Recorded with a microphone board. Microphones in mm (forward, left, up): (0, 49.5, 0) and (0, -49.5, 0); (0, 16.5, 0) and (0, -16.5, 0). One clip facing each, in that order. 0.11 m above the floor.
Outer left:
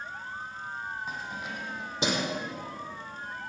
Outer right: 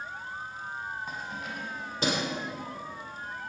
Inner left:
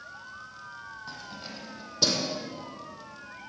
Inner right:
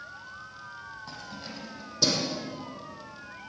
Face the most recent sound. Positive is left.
turn(degrees=20)  # may be behind; listen again after turning